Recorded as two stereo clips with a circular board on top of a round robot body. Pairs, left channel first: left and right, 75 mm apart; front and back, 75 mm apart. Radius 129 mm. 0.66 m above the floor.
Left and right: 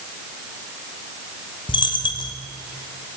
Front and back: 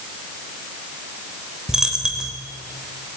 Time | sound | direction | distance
1.7 | a dropped coin | 100° left | 0.6 m